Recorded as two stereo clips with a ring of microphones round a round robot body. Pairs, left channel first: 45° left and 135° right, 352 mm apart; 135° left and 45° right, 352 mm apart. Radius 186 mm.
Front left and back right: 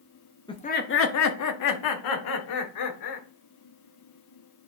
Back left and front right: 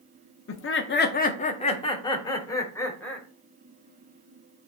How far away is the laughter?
About 0.8 m.